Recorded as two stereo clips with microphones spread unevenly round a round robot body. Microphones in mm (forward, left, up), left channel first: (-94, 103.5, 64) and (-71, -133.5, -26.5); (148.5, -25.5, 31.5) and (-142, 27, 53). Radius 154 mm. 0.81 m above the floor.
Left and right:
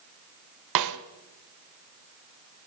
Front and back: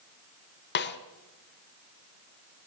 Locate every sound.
0.8 s a snare drum: 70° right, 1.2 m